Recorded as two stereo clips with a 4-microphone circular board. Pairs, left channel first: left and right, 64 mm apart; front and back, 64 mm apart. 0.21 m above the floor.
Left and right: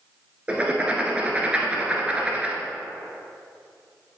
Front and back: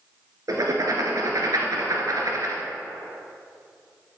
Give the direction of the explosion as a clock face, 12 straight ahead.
I don't hear an explosion.